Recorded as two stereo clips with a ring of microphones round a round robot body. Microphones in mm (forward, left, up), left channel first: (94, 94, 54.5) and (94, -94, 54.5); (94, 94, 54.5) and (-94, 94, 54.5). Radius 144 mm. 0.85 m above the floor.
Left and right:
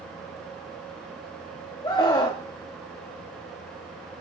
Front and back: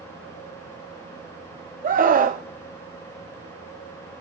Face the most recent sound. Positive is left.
turn(degrees=155)